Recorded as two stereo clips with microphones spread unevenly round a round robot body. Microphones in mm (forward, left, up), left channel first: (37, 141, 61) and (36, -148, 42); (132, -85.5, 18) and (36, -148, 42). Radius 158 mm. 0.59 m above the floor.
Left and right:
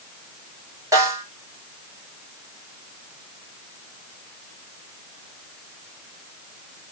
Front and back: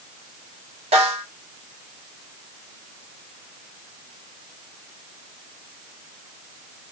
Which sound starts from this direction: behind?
A snare drum, at 0.9 s.